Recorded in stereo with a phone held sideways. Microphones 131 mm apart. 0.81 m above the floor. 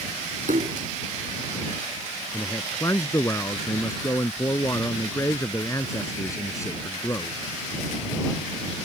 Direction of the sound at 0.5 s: 80° right.